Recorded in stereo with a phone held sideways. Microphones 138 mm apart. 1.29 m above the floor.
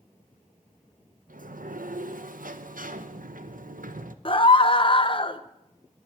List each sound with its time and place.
1.3 s a sliding door: 80° right, 0.8 m
4.2 s a scream: 40° left (ahead or behind), 0.9 m